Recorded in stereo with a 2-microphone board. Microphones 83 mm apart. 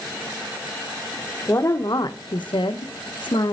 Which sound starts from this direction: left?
A woman speaking, at 1.5 s.